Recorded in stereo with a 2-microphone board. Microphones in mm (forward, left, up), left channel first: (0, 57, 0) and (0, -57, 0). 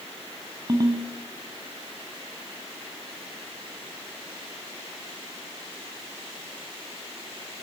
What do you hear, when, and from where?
0.7 s a ringtone: 40° right (ahead or behind), 3.5 m